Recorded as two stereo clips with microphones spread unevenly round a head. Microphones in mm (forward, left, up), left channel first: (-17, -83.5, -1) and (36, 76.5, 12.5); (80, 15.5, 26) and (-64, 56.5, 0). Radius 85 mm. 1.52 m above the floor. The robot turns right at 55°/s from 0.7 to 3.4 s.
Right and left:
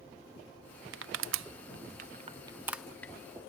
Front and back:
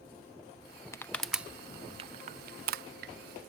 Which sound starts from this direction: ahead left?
Crushing, at 0.9 s.